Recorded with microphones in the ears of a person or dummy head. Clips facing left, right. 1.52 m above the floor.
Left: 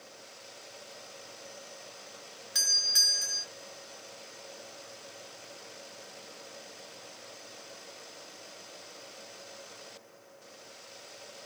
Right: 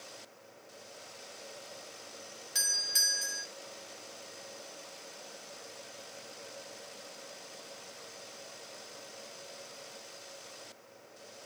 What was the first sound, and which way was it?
A doorbell, 5° left (ahead or behind).